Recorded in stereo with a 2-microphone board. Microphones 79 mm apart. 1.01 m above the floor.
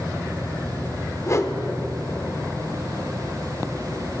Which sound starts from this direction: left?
A whoosh, at 1.3 s.